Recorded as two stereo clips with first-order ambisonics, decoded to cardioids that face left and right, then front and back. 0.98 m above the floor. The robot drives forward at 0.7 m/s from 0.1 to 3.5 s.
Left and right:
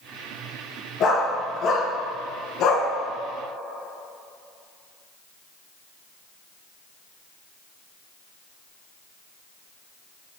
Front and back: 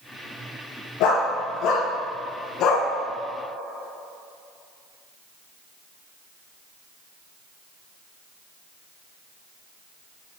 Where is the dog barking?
30° left, 3.5 m; by 2.9 s 45° left, 2.5 m.